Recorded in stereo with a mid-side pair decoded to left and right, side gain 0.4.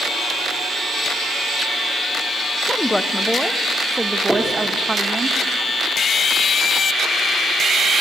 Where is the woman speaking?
15° left, 1.6 m; by 5.3 s 35° right, 1.9 m.